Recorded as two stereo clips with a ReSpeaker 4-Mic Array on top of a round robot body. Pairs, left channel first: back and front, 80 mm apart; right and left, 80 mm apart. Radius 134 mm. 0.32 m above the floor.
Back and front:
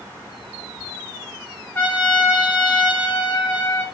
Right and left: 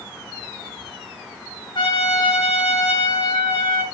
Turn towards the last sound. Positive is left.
turn(degrees=-120)